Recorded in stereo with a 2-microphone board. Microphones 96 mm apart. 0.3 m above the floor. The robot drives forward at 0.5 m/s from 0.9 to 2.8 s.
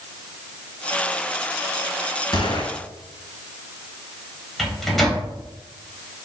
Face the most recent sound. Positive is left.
turn(degrees=0)  # may be behind; listen again after turning